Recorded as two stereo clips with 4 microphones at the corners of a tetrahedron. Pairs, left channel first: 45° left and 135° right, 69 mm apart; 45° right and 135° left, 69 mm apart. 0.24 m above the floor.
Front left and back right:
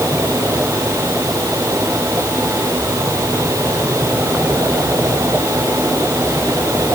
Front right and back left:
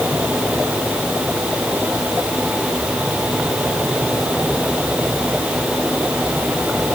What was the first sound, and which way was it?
Only background noise.